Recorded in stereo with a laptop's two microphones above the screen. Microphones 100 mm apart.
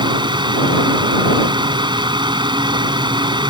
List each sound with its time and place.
0.0 s a fan: 50° right (ahead or behind)